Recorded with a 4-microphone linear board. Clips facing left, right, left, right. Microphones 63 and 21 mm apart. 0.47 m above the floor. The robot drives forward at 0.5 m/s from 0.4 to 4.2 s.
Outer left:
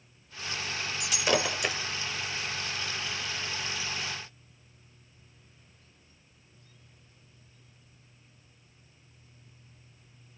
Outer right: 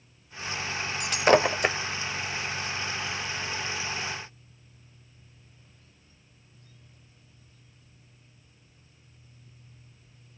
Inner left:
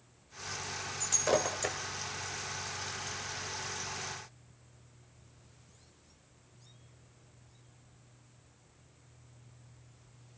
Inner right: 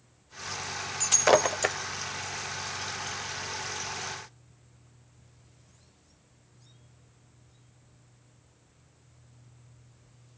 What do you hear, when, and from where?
1.0 s breaking glass: 50° right (ahead or behind), 0.8 m; by 1.8 s 35° right (ahead or behind), 1.0 m